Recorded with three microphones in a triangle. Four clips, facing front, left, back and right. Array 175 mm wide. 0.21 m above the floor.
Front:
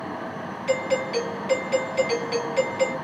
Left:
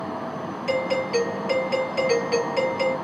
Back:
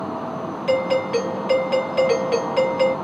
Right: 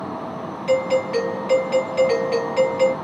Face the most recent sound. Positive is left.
turn(degrees=-155)